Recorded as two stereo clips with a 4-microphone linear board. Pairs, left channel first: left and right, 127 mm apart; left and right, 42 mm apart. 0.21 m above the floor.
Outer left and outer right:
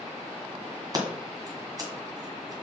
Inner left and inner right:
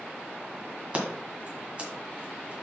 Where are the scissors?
30° right (ahead or behind), 1.9 m.